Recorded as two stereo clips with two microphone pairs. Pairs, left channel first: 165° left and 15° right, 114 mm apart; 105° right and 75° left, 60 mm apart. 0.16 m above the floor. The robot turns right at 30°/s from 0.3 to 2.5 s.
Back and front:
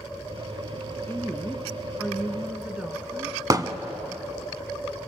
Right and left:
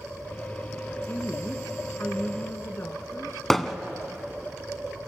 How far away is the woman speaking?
About 1.3 m.